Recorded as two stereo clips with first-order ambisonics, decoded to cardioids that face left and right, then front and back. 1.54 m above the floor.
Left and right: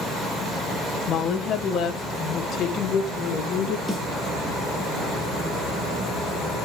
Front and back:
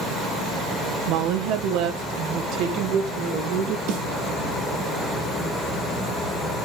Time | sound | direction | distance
1.1 | a woman speaking | 150° left | 0.9 m
3.9 | a snare drum | straight behind | 4.5 m